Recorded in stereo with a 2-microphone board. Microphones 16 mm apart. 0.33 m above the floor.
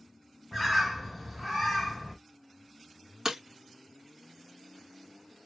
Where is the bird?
Centre (ahead or behind), 1.2 m.